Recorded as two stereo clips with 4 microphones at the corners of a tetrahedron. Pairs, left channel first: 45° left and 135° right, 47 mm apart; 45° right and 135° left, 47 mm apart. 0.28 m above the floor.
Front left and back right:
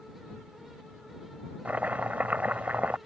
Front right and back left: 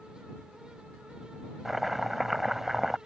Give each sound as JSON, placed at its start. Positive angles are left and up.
{"t": 1.6, "sound": "chopping", "azimuth_deg": -140}